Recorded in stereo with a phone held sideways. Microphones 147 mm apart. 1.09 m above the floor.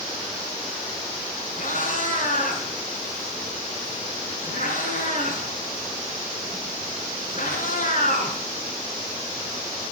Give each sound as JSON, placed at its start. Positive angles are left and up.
{"t": 1.6, "sound": "a cat meowing", "side_deg": 65, "distance_m": 3.0}